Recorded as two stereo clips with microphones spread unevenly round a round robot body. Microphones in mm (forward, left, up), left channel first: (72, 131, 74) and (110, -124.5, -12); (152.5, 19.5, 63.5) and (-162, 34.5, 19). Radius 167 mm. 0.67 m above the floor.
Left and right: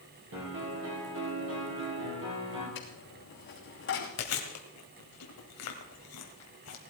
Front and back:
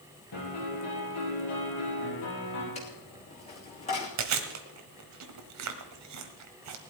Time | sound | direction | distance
0.3 | a piano | 45° right | 6 m
2.8 | a dropped coin | 65° left | 3 m
4.2 | chewing | 140° left | 1.5 m